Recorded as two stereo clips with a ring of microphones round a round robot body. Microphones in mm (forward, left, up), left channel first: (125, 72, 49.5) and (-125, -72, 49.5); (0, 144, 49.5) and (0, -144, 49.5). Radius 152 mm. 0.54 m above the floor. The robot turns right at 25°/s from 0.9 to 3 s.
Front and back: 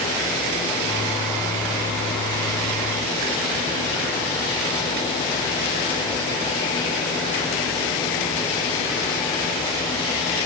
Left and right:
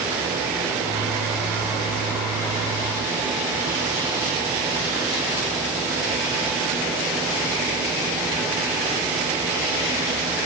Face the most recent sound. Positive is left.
No sound to turn to.